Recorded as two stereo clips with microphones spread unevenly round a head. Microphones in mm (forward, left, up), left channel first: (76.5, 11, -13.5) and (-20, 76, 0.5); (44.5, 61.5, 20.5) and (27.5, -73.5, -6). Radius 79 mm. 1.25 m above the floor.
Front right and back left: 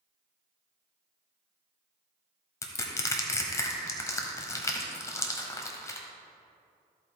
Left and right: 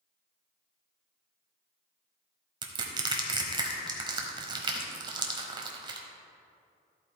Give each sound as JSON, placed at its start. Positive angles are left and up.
{"t": 2.6, "sound": "crushing", "azimuth_deg": -70, "distance_m": 1.1}